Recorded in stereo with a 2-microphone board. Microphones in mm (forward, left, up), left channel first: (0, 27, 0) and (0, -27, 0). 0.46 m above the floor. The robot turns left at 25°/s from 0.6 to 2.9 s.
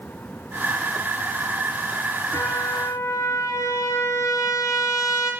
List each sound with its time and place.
2.3 s a trumpet: 85° left, 5 m; by 5.3 s 75° left (ahead or behind), 5 m